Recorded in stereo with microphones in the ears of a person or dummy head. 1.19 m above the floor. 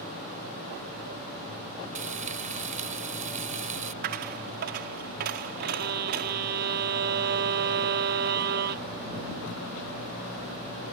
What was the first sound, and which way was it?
Frying, 40° right (ahead or behind).